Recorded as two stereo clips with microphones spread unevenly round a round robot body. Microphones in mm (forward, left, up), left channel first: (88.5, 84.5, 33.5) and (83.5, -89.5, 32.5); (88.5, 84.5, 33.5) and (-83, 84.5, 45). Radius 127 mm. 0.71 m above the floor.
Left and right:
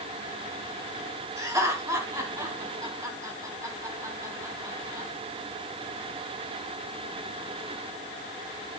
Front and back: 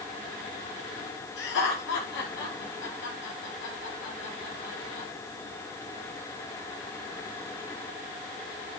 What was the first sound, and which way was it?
Laughter, 20° right.